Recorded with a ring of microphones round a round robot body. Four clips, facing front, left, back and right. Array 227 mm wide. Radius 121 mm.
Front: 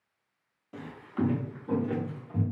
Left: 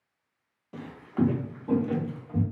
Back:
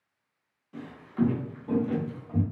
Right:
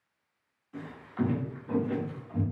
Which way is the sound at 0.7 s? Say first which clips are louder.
Left 4 dB, back 4 dB; 65° left.